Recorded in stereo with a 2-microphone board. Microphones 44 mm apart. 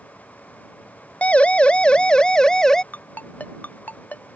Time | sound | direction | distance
1.2 | a siren | 30° left (ahead or behind) | ?
2.9 | a ringtone | 40° left (ahead or behind) | ?